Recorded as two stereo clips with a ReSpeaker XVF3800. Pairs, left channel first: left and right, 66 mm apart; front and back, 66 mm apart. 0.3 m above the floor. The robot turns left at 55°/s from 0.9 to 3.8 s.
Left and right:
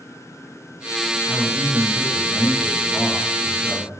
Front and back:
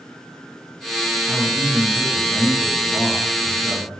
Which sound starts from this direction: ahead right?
A man speaking, at 1.3 s.